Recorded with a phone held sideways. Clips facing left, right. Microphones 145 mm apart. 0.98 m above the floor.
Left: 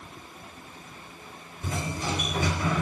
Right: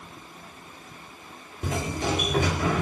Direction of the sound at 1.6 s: 70° right (ahead or behind).